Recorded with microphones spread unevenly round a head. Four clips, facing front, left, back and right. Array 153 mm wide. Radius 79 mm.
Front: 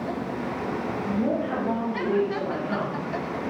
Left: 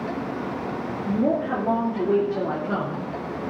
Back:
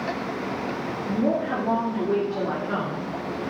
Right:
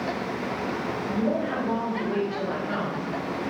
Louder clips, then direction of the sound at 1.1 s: Left 4 dB, back 3 dB; 105° left.